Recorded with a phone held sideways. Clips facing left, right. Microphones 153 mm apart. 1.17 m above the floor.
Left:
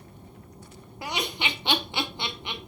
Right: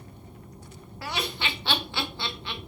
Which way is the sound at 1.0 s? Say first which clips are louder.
Left 1 dB; 20° left (ahead or behind).